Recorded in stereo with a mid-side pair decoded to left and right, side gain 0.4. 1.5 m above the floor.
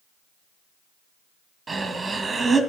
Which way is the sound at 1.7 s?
35° right.